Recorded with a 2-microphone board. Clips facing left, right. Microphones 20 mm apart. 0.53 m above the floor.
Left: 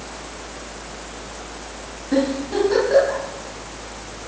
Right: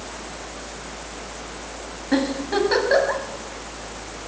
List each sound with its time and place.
2.1 s a giggle: 40° right (ahead or behind), 4.5 m